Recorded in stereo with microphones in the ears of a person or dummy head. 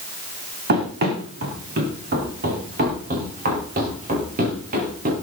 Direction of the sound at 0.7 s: 50° right (ahead or behind).